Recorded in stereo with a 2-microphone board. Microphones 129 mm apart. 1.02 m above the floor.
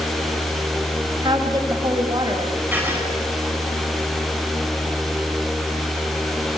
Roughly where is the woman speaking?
Right.